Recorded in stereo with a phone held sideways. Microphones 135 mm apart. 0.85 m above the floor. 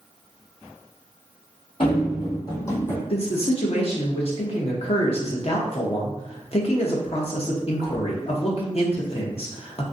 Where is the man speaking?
50° left (ahead or behind), 0.6 m.